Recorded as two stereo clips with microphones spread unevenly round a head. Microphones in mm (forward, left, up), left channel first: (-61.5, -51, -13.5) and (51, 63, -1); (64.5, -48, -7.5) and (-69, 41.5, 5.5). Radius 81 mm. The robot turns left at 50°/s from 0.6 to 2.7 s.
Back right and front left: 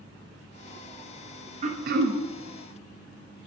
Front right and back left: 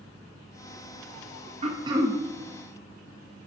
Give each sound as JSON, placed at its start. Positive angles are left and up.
{"t": 1.6, "sound": "throat clearing", "azimuth_deg": 90, "distance_m": 0.7}